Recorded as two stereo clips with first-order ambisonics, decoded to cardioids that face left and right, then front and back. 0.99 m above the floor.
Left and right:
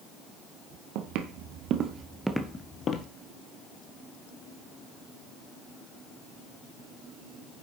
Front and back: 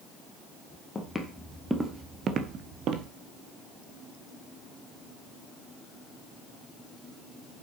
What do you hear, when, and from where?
0.9 s footsteps: 80° right, 2.0 m; by 3.1 s 140° left, 1.6 m